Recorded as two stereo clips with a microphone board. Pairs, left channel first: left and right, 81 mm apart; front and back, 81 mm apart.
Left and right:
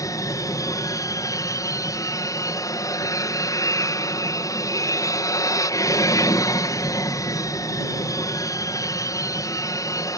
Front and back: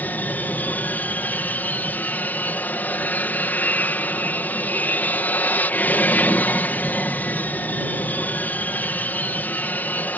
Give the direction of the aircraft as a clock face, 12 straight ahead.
10 o'clock.